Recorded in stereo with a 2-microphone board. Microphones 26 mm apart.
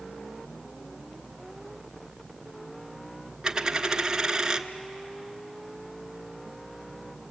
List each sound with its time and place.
3.4 s a dropped coin: 25° right (ahead or behind), 0.8 m